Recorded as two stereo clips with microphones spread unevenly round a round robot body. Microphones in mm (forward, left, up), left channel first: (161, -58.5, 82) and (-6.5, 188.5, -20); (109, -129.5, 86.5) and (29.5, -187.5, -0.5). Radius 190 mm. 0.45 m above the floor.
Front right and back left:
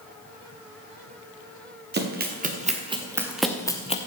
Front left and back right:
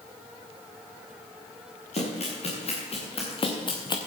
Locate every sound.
1.9 s running footsteps: 65° left, 3.5 m; by 4.0 s 10° left, 2 m